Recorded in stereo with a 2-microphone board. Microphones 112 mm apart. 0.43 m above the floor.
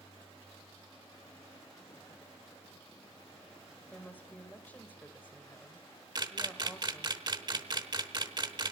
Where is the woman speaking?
15° left (ahead or behind), 1.9 m.